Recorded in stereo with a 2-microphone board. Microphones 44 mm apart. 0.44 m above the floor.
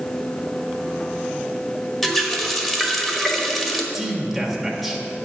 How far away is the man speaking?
About 1.4 m.